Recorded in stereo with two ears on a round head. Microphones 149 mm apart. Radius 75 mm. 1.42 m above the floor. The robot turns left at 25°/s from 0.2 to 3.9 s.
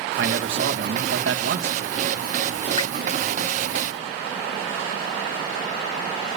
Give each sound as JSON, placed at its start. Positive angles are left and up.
{"t": 0.2, "sound": "a man speaking", "azimuth_deg": -70, "distance_m": 1.9}
{"t": 2.8, "sound": "dripping", "side_deg": 25, "distance_m": 0.9}